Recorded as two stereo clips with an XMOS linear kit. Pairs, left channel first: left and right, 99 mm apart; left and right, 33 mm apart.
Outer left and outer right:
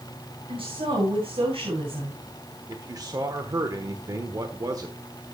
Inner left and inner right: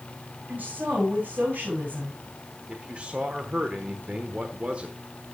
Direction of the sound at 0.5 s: 70° right (ahead or behind).